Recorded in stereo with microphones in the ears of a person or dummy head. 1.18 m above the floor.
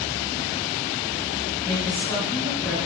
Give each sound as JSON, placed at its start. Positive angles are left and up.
{"t": 1.6, "sound": "a woman speaking", "side_deg": 25, "distance_m": 1.4}